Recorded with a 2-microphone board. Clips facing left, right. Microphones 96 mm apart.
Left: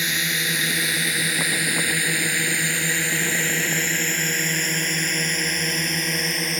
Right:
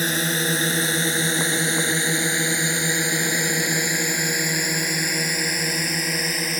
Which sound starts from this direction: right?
A drone, at 0.0 s.